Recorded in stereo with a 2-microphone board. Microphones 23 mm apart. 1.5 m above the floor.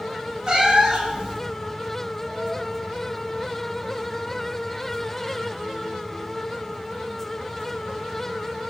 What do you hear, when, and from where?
0.5 s a cat meowing: 30° right (ahead or behind), 1.2 m